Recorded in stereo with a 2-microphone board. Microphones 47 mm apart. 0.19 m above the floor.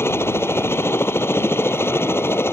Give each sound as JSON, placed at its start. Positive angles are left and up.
{"t": 0.0, "sound": "a helicopter", "side_deg": 65}